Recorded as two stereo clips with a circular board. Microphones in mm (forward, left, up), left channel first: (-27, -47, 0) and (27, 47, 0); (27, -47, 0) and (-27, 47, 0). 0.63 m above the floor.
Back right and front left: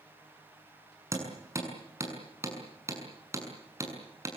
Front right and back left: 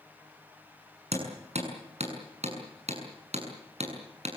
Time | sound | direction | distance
1.1 | hammering | 120° left | 7 m